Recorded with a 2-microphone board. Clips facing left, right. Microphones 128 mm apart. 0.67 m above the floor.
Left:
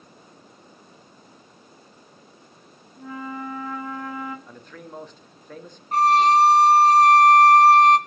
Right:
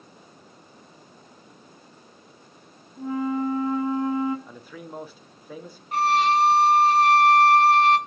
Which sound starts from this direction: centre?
A man speaking, at 4.5 s.